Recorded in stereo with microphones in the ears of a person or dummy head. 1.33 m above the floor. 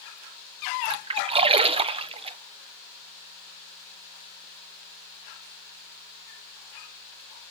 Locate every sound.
0.8 s a splash: 25° right (ahead or behind), 0.5 m